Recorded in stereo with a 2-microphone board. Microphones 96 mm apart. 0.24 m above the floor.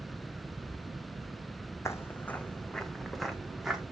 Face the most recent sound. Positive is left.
turn(degrees=-5)  # may be behind; listen again after turning